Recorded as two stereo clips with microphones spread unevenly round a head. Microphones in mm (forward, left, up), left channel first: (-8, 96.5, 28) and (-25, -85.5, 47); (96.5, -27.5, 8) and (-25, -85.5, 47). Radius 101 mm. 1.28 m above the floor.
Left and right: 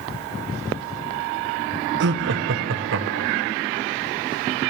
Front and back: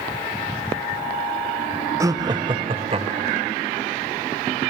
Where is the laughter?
80° right, 0.7 m; by 3.5 s 110° right, 1.3 m.